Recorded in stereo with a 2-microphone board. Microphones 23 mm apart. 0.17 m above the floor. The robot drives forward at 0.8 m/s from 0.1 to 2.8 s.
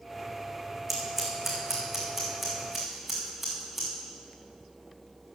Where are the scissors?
Centre (ahead or behind), 3.5 m.